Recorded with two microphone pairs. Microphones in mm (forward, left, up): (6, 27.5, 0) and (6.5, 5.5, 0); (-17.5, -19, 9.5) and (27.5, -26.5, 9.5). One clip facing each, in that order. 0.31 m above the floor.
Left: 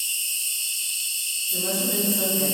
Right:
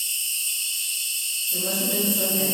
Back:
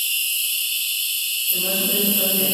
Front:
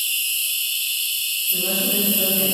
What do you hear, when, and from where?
0.0 s an insect: 95° right, 1.0 m
1.5 s a woman speaking: 160° right, 1.4 m